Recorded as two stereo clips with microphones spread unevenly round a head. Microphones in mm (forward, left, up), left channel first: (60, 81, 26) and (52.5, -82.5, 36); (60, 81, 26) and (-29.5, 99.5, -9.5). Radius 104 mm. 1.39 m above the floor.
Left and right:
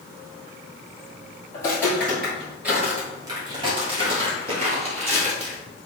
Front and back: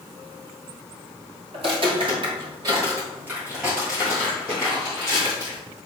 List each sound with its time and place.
1.5 s footsteps: 160° left, 1.7 m; by 5.6 s 55° right, 2.5 m